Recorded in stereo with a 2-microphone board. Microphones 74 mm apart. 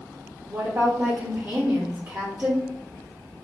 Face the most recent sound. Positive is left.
turn(degrees=-35)  # may be behind; listen again after turning